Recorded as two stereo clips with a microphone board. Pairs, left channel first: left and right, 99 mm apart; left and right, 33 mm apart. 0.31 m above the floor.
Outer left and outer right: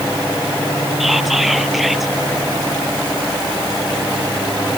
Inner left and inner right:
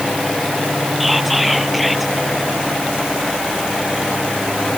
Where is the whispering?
Centre (ahead or behind).